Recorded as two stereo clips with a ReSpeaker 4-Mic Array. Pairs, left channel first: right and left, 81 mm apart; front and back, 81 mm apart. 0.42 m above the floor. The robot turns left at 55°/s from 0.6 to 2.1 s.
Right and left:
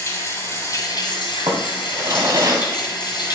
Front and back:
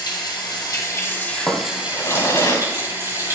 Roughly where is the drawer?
Left.